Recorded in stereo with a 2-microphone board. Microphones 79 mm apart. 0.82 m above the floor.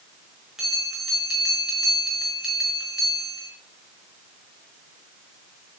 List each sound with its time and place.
0.6 s a bell: 5° right (ahead or behind), 5.5 m